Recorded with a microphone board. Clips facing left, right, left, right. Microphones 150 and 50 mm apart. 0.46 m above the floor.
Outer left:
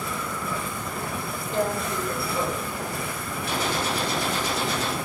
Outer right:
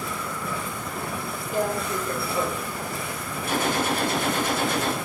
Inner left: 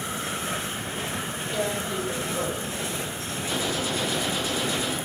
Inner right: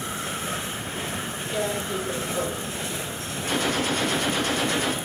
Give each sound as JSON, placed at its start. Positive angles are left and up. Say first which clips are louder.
{"t": 1.5, "sound": "tearing paper", "louder": "even, inner right 1 dB", "side_deg": -10, "distance_m": 8.5}
{"t": 3.5, "sound": "a gunshot", "louder": "outer right 3 dB, inner right 4 dB", "side_deg": -50, "distance_m": 6.5}